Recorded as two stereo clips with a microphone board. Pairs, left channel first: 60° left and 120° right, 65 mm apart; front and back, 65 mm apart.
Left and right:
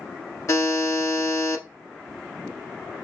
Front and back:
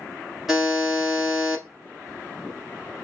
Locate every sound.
0.5 s a buzzer: 95° left, 1.3 m